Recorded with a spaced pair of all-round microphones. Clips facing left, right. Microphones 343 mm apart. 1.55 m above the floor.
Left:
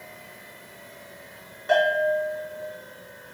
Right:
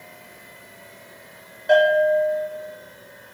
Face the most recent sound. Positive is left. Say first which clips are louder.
# right 6 dB
turn(degrees=20)  # may be behind; listen again after turning